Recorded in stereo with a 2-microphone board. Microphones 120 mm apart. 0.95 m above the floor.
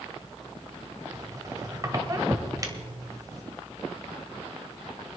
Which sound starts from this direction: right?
A squeak, at 1.1 s.